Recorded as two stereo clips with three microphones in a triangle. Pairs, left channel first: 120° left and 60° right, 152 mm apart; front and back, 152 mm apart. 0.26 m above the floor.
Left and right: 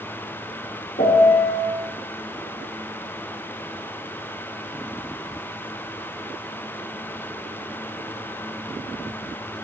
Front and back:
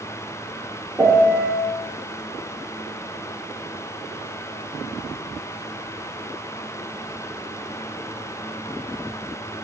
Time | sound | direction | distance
1.0 | a piano | 105° left | 0.7 m